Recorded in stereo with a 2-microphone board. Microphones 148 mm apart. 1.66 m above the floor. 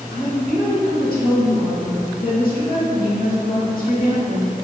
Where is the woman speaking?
85° left, 0.6 m.